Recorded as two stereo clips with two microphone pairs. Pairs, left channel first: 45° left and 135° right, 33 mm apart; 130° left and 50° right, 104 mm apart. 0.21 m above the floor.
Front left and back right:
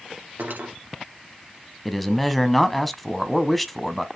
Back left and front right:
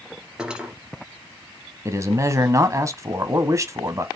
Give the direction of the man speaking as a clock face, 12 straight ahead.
1 o'clock.